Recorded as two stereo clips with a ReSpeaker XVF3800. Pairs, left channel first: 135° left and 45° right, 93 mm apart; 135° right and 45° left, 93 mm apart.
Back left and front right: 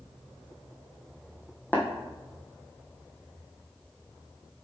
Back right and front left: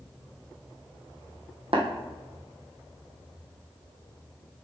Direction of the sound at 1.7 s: 65° left.